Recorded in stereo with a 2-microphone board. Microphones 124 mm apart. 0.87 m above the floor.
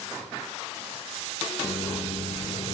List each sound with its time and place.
1.6 s a microwave: 50° left (ahead or behind), 0.6 m